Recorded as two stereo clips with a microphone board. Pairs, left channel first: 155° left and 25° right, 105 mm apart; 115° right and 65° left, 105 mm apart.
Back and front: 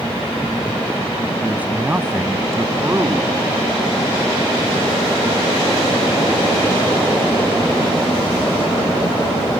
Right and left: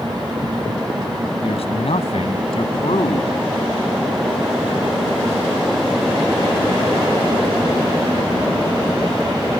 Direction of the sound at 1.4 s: 100° right.